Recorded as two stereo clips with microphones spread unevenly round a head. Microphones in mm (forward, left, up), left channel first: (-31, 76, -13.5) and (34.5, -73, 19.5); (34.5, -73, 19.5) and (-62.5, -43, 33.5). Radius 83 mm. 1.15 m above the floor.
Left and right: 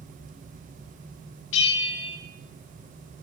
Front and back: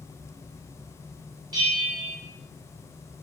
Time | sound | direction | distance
1.5 | a bell | 95° left | 1.1 m